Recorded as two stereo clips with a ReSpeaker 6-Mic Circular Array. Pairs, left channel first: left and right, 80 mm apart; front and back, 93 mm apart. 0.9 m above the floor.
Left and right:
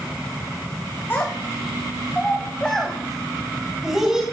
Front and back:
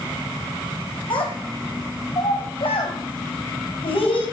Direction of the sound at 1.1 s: 30° left.